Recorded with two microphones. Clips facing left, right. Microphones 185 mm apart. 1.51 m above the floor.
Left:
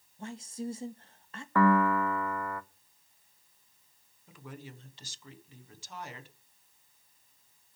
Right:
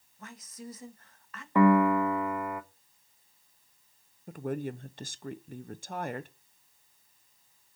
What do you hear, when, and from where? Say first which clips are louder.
0.2 s a woman speaking: left 7 dB; 30° left (ahead or behind), 1.6 m
1.6 s a piano: right 3 dB; 20° right (ahead or behind), 0.8 m
4.3 s a woman speaking: right 13 dB; 60° right (ahead or behind), 0.9 m